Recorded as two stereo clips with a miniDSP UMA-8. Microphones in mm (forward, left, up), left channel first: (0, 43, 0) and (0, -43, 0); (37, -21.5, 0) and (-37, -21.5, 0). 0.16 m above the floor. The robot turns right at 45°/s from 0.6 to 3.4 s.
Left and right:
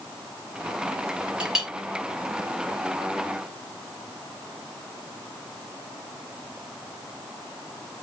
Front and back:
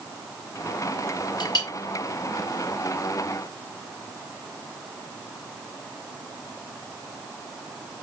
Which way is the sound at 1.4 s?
10° right.